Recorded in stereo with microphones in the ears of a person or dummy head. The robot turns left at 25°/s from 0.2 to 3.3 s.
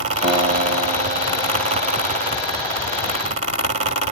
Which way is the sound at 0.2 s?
40° right.